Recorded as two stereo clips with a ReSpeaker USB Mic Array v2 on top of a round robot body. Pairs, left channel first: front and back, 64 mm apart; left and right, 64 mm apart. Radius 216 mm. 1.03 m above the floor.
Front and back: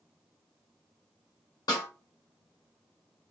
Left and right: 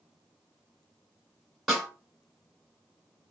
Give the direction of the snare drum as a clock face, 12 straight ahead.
12 o'clock.